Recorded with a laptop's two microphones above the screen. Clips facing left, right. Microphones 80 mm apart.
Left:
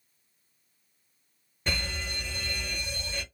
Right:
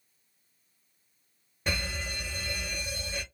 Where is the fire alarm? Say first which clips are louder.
Even; 5° right (ahead or behind), 1.1 m.